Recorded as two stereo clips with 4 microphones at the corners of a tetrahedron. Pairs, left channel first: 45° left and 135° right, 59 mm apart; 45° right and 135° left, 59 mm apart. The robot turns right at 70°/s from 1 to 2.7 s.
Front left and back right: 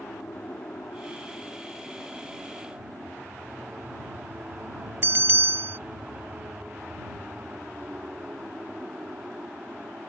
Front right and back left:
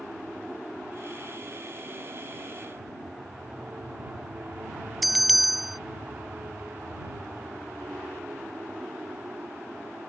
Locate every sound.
0.0 s an aircraft: 55° left; by 10.1 s 170° left
5.0 s a bell: 140° right